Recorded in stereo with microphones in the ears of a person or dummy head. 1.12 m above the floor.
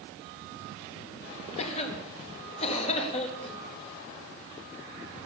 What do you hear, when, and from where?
1.6 s a cough: 35° left (ahead or behind), 2 m